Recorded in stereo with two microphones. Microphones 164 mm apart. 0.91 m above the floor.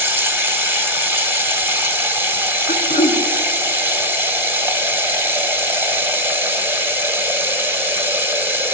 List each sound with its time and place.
0.0 s running water: 15° right (ahead or behind), 1.2 m
2.7 s throat clearing: 65° left (ahead or behind), 1.4 m